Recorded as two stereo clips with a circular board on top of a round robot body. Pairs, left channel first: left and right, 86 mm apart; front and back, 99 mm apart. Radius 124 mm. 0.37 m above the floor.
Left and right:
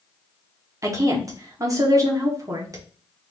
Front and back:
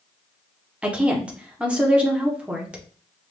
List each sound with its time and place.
0.8 s a woman speaking: 110° right, 1.4 m